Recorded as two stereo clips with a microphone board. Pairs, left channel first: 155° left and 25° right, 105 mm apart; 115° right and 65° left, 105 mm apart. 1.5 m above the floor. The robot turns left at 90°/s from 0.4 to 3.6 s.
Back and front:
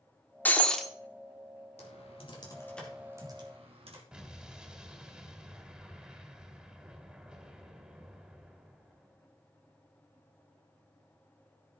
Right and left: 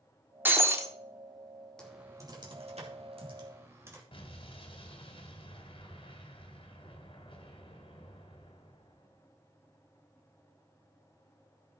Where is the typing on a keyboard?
165° left, 2.5 m; by 4.0 s 5° left, 2.5 m.